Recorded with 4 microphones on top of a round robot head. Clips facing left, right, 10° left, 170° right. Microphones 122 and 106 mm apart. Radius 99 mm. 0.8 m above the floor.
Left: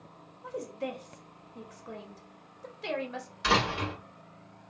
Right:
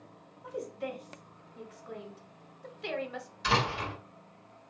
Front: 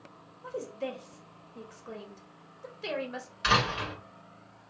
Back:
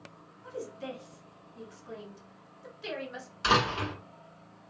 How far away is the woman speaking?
About 1.1 m.